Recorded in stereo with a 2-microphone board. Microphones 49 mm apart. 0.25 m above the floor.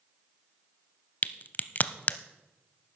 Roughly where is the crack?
Left.